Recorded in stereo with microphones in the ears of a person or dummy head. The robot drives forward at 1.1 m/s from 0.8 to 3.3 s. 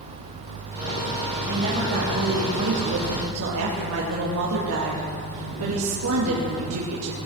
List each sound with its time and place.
1.5 s a woman speaking: 45° right (ahead or behind), 3.5 m; by 7.2 s 80° right, 2.5 m